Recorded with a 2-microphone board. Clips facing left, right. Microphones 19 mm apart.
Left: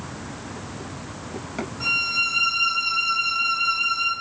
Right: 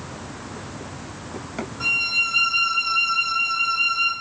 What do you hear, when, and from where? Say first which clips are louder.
1.8 s a violin: right 1 dB; 15° right (ahead or behind), 0.8 m